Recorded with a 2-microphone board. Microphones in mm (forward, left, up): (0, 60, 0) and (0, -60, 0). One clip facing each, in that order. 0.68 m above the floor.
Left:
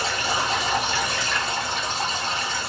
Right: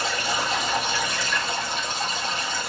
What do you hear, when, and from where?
0.0 s running water: 75° left (ahead or behind), 2.5 m